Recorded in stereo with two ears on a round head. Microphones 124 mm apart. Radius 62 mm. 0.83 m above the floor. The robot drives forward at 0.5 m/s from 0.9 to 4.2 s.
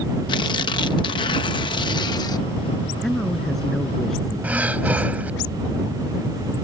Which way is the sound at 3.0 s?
5° left (ahead or behind).